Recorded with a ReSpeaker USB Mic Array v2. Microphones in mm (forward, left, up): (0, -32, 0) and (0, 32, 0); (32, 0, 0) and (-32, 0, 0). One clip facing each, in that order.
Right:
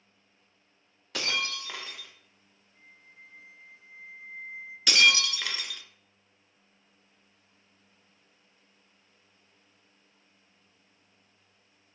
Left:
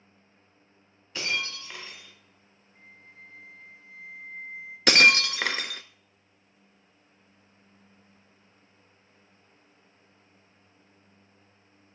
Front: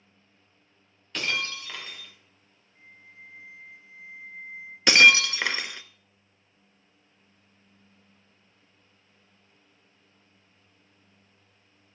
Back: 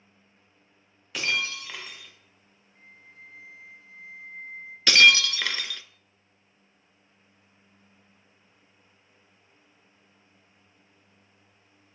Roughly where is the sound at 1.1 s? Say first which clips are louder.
Even, back 1 dB; right.